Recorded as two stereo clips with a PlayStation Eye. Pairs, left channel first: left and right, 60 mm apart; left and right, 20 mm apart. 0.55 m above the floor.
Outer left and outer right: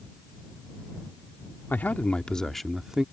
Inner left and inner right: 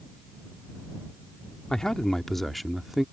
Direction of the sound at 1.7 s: 35° left (ahead or behind).